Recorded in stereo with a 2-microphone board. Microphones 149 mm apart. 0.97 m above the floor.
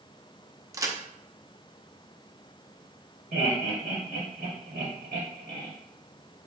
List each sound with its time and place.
0.7 s a crack: 25° right (ahead or behind), 0.6 m
3.3 s laughter: 75° right (ahead or behind), 1.6 m